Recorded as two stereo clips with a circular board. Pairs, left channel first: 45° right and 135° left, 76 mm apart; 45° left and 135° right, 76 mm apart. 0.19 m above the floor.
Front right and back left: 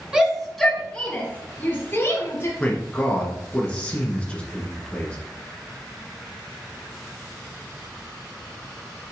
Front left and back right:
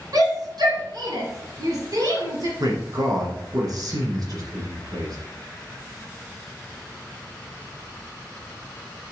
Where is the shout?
150° right, 2 m; by 2.5 s 100° right, 4.5 m.